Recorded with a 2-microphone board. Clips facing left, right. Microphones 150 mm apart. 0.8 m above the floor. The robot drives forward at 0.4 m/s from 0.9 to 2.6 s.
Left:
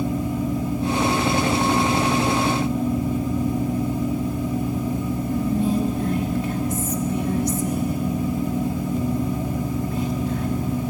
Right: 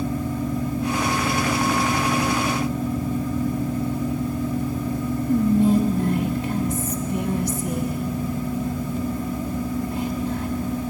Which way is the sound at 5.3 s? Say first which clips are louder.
Right 5 dB; 30° right (ahead or behind).